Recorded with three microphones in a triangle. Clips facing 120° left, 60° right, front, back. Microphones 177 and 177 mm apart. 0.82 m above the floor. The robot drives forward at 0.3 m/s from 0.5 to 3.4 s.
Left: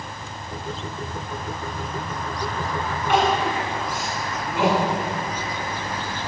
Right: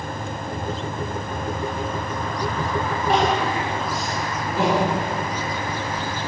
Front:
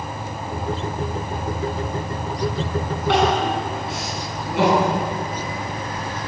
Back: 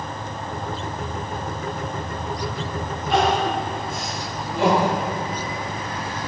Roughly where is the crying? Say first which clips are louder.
Even, front 1 dB; ahead.